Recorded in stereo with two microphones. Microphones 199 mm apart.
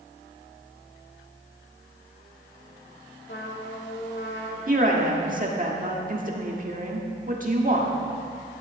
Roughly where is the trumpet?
Left.